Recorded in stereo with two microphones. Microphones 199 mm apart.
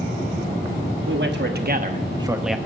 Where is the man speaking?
60° right (ahead or behind), 1.3 m; by 2.6 s 5° left (ahead or behind), 0.7 m.